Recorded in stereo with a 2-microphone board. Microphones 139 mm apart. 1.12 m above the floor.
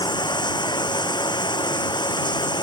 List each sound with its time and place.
0.0 s running water: 30° left (ahead or behind)